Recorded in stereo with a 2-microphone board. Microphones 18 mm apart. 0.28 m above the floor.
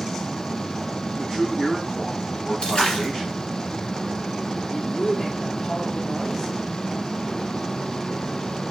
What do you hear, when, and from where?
1.2 s a man speaking: 30° left (ahead or behind), 2.5 m
2.6 s a splash: 65° left (ahead or behind), 1.5 m
4.7 s a woman speaking: 35° left (ahead or behind), 1.4 m